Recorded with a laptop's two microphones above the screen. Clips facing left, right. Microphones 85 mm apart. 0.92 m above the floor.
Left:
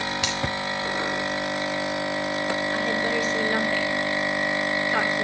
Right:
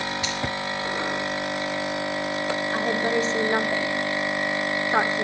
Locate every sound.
0.2 s a finger snap: 80° left, 3.5 m
2.7 s a woman speaking: 25° right (ahead or behind), 2.5 m